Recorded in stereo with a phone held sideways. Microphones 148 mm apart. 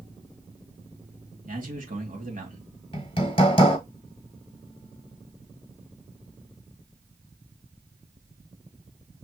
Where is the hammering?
35° left (ahead or behind), 1.5 m.